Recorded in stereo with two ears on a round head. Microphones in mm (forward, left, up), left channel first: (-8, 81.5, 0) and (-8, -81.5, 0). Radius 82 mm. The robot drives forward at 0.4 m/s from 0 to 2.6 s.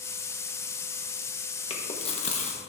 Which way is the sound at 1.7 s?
30° left (ahead or behind).